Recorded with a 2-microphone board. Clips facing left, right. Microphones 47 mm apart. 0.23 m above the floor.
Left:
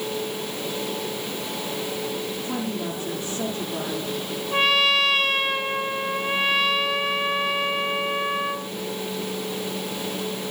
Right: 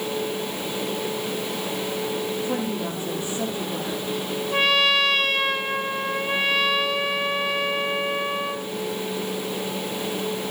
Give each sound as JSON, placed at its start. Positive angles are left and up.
{"t": 2.4, "sound": "a woman speaking", "side_deg": -15, "distance_m": 10.0}
{"t": 4.5, "sound": "a trumpet", "side_deg": 0, "distance_m": 1.6}